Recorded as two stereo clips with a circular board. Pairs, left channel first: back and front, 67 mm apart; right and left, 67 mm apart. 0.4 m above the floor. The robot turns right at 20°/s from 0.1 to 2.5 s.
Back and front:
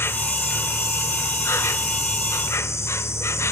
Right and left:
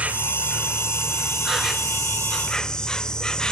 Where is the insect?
150° left, 0.9 m; by 3.5 s 165° right, 0.9 m.